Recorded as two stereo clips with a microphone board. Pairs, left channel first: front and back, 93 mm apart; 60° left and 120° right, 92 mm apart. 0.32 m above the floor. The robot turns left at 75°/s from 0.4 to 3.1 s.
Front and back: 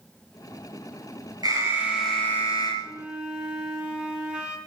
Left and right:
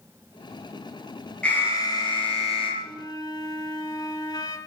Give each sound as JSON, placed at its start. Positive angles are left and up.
{"t": 1.4, "sound": "an alarm", "azimuth_deg": 140, "distance_m": 6.0}
{"t": 2.8, "sound": "a flute", "azimuth_deg": 120, "distance_m": 2.5}